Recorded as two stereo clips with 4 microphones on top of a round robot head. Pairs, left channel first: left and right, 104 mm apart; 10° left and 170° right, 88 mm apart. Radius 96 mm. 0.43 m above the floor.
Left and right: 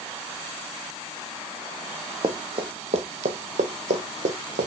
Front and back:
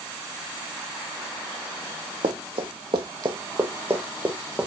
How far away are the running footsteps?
About 1.1 m.